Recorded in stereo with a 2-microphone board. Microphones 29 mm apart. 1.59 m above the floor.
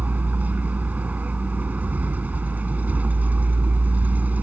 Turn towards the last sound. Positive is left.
turn(degrees=-65)  # may be behind; listen again after turning